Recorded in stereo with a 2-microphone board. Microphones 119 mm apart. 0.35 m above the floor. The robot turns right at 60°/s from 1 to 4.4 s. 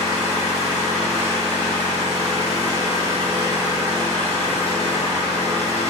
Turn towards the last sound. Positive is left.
turn(degrees=30)